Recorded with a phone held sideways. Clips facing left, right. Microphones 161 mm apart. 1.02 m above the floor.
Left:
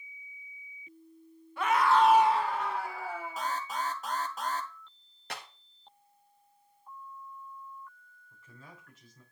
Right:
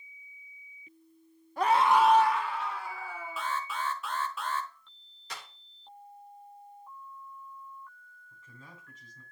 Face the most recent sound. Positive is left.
turn(degrees=5)  # may be behind; listen again after turning